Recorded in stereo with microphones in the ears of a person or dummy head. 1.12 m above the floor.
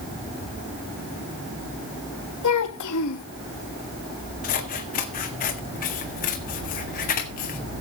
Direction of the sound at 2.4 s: 80° left.